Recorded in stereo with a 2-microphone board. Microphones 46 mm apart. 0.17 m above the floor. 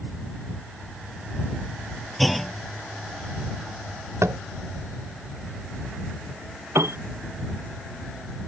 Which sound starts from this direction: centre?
A clunk, at 2.2 s.